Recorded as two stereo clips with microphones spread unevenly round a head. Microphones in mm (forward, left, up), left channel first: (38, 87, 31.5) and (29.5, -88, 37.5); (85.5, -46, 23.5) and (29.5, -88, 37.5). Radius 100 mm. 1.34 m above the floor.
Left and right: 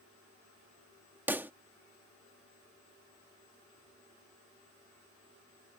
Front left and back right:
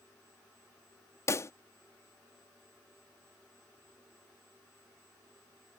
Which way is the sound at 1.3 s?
15° right.